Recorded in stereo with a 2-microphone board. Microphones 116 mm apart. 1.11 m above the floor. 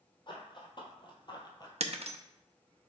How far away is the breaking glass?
About 0.6 m.